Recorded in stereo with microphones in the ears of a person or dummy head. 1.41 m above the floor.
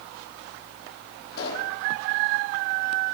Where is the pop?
55° left (ahead or behind), 7.5 m.